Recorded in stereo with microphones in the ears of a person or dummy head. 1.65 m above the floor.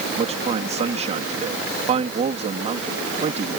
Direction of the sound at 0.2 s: 40° right (ahead or behind).